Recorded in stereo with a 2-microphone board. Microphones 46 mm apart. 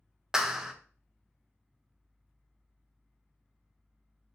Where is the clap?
10° right (ahead or behind), 0.5 m.